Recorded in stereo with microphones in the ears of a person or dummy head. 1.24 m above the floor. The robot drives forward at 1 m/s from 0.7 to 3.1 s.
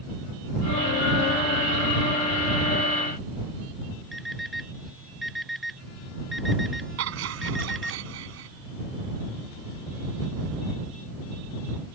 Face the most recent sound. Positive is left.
turn(degrees=-80)